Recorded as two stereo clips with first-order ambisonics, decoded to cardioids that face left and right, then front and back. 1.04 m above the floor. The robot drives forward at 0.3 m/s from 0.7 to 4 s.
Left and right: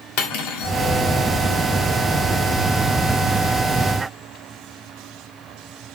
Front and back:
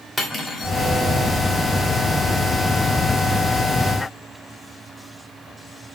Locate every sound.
0.2 s cutlery clinking: 75° left, 1.4 m